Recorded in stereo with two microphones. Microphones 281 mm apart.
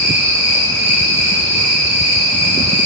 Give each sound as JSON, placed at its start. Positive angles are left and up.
{"t": 0.0, "sound": "an insect", "side_deg": -70, "distance_m": 1.0}